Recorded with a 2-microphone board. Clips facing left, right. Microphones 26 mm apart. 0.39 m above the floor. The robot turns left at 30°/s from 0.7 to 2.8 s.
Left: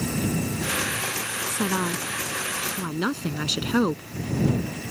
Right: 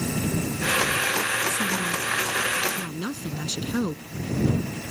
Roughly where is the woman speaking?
Left.